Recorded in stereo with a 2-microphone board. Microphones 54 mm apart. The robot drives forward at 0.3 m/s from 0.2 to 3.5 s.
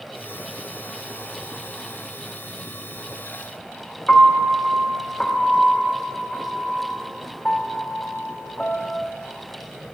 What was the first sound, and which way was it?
A piano, 15° left (ahead or behind).